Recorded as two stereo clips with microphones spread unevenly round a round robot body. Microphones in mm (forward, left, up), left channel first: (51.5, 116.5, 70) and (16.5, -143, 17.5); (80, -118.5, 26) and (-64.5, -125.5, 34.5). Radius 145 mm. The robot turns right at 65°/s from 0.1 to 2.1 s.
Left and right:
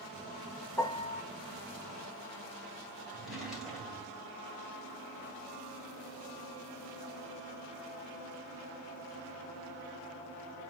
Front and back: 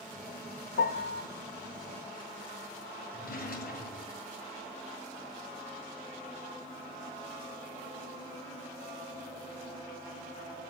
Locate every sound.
0.8 s a piano: 5° left, 0.7 m; by 1.2 s 35° left, 0.7 m
3.1 s a drawer: 10° right, 2.5 m